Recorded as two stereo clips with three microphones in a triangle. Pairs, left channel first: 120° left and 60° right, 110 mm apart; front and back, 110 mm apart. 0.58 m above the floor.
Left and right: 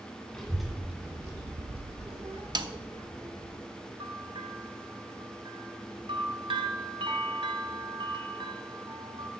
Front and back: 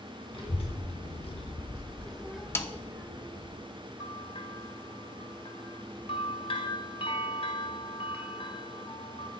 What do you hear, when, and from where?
0.3 s a child speaking: 35° left, 1.4 m; by 3.5 s 110° right, 2 m
2.5 s a snare drum: 55° right, 0.6 m
4.0 s a bell: 25° right, 0.9 m